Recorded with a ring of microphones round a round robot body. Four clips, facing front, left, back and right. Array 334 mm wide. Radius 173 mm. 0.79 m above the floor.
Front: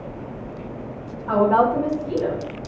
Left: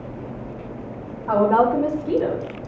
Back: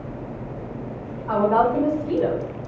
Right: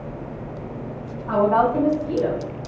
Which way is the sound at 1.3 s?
75° left.